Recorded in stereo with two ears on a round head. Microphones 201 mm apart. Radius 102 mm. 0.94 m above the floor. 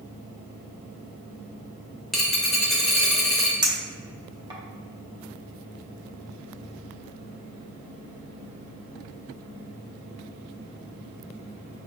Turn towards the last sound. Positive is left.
turn(degrees=-20)  # may be behind; listen again after turning